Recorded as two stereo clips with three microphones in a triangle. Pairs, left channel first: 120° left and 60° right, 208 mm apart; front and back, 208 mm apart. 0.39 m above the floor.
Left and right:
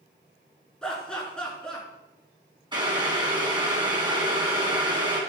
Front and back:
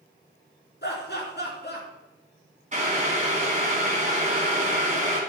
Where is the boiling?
125° right, 3 m.